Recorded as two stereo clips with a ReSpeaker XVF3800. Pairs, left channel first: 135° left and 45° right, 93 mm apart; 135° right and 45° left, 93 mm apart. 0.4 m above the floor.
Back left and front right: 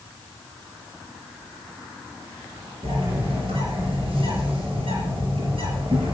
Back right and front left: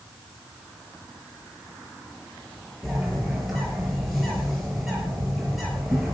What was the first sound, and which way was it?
A bird, 45° right.